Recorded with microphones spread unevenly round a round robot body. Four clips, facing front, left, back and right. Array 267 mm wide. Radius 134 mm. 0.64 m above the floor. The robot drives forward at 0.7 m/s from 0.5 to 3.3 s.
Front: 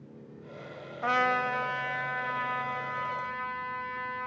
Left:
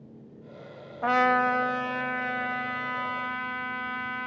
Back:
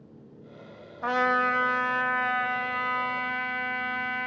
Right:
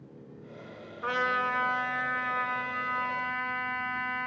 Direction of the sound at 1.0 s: 85° left.